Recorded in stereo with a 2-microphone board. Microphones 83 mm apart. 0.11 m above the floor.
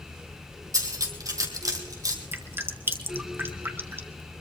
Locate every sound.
0.7 s cutlery clinking: 45° right (ahead or behind), 2.0 m
2.3 s dripping: 30° right (ahead or behind), 1.1 m